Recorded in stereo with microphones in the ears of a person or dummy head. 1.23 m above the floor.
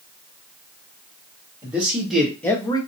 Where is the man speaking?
10° right (ahead or behind), 1.5 m; by 2.8 s 25° left (ahead or behind), 0.8 m.